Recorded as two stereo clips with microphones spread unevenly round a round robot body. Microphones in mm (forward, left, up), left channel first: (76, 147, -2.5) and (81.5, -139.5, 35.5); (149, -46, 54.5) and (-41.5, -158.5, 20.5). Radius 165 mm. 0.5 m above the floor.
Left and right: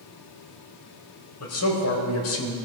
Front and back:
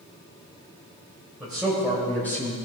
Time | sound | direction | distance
1.4 | a man speaking | 125° left | 2.5 m